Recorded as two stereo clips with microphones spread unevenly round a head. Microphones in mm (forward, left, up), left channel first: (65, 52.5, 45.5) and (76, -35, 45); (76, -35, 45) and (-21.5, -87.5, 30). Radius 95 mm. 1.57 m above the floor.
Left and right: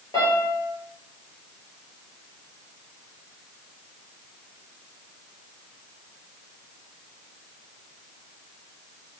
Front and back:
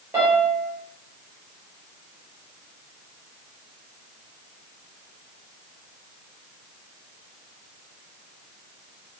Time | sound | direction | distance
0.1 | a piano | 125° left | 0.9 m